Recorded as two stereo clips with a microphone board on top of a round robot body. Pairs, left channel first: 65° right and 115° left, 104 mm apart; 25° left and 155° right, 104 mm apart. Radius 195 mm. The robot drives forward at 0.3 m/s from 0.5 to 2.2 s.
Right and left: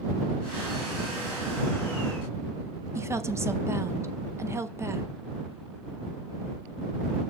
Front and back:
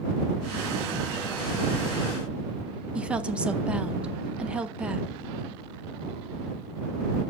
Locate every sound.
3.0 s a woman speaking: 135° left, 1.0 m